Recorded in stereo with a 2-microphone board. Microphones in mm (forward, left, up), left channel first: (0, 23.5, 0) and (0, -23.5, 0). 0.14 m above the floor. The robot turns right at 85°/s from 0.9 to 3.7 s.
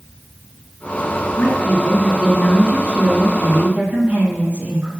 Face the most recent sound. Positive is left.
turn(degrees=-65)